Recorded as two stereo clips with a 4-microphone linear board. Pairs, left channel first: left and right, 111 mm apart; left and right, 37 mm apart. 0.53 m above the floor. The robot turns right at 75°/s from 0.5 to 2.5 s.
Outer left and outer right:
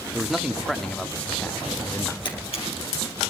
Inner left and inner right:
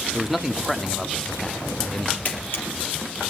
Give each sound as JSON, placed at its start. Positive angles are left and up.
{"t": 0.1, "sound": "a man speaking", "side_deg": -5, "distance_m": 0.8}
{"t": 2.2, "sound": "a camera shutter", "side_deg": 45, "distance_m": 4.0}